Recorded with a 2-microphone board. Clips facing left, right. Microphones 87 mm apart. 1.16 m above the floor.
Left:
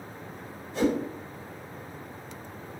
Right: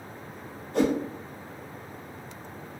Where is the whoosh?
55° right (ahead or behind), 0.6 m.